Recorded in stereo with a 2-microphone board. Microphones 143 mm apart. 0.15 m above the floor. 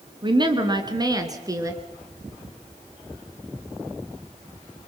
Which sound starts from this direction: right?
A woman speaking, at 0.2 s.